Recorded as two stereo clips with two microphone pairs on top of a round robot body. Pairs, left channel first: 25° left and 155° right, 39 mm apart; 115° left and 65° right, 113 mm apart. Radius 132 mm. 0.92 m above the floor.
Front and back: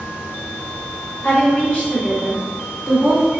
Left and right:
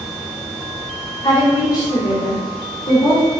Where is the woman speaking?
55° left, 1.3 m; by 3.3 s 140° left, 1.0 m.